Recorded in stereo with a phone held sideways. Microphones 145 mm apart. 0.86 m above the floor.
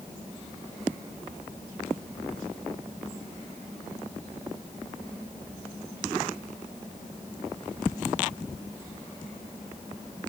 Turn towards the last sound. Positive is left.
No sound to turn to.